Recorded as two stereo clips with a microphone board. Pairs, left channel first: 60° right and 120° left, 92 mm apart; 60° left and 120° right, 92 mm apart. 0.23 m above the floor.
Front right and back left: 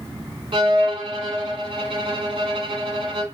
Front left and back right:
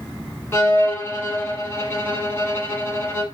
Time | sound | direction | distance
0.5 | a violin | 120° left | 1.1 m